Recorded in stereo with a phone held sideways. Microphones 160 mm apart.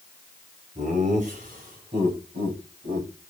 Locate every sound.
0.8 s laughter: 45° right (ahead or behind), 6 m; by 3.1 s 70° right (ahead or behind), 6 m